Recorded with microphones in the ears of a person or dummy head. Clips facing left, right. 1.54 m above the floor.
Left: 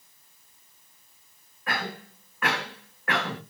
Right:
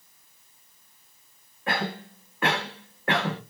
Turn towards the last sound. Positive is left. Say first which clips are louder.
# right 4 dB
turn(degrees=-25)  # may be behind; listen again after turning